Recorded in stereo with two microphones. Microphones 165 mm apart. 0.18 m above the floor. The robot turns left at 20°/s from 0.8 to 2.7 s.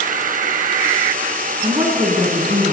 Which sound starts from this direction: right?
A woman speaking, at 1.6 s.